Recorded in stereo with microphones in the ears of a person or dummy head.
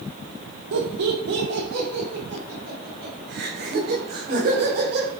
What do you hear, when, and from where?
0.7 s laughter: 70° right (ahead or behind), 2 m; by 5.1 s 55° right (ahead or behind), 5 m